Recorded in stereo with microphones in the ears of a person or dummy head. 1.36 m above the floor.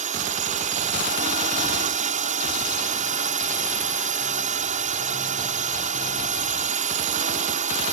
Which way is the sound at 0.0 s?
45° right (ahead or behind).